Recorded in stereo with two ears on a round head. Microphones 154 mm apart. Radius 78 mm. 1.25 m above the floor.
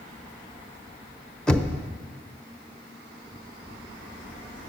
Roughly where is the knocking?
Centre.